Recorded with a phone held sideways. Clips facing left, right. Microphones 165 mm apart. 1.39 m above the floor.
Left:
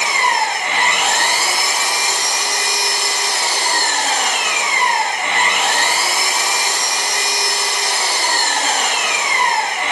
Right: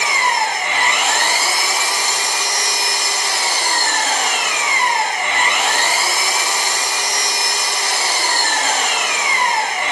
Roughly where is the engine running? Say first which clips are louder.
Left 1 dB; left.